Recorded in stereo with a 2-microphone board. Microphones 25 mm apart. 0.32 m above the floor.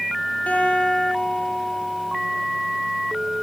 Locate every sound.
0.5 s a guitar: 80° left, 10 m